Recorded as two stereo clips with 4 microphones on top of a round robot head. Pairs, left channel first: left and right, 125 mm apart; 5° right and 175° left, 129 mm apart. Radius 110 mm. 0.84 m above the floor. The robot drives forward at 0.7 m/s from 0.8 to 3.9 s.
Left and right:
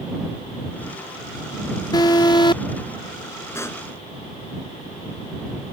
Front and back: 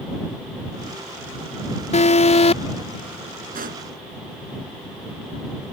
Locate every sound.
1.9 s an alarm: 25° left; by 2.6 s 30° left
3.5 s a pop: 160° left